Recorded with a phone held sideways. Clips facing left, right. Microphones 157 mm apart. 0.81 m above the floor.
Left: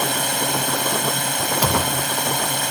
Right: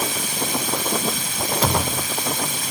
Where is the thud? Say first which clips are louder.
Even; 5° left (ahead or behind).